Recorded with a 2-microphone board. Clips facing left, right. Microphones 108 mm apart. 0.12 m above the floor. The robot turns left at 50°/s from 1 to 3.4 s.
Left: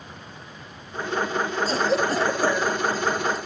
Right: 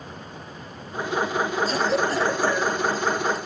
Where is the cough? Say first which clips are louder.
Even; 30° left (ahead or behind), 1.2 m; by 3.4 s 5° right (ahead or behind), 1.2 m.